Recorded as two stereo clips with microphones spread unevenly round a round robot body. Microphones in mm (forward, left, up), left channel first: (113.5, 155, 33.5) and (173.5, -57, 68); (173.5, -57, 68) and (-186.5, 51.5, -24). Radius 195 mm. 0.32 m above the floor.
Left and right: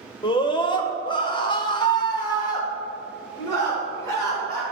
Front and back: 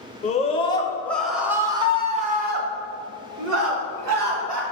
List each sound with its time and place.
0.2 s a scream: 60° left, 1.6 m; by 4.6 s straight behind, 2.5 m